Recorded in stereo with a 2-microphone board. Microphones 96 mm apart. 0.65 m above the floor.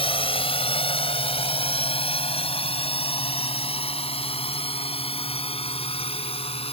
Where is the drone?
65° left (ahead or behind); by 6.7 s 70° left (ahead or behind).